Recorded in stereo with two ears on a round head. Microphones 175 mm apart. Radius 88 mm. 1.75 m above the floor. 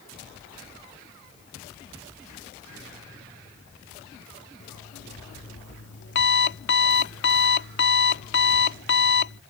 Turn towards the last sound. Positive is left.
turn(degrees=60)  # may be behind; listen again after turning